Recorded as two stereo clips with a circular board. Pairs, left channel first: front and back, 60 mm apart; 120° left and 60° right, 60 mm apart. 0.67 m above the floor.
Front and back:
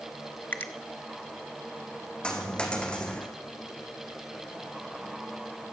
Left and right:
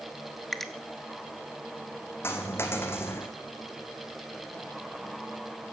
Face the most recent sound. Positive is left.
turn(degrees=75)